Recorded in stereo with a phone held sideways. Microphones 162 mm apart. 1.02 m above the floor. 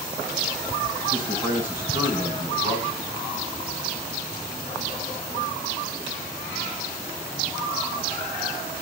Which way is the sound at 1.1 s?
60° left (ahead or behind).